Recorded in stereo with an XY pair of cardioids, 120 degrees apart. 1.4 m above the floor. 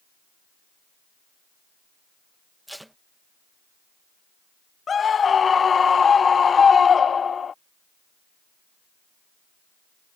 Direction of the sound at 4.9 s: 35° left.